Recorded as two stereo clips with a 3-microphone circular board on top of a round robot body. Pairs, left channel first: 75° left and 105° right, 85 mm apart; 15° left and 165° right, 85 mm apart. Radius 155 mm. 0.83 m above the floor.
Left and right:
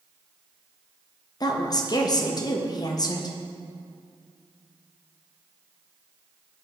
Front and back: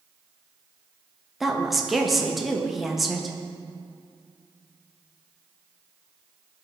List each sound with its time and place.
1.4 s a woman speaking: 105° left, 1.2 m